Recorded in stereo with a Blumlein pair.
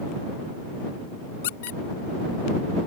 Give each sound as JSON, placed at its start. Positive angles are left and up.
{"t": 1.4, "sound": "a squeak", "azimuth_deg": 55}